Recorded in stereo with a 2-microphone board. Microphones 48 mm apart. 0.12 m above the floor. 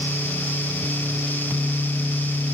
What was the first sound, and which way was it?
Only background noise.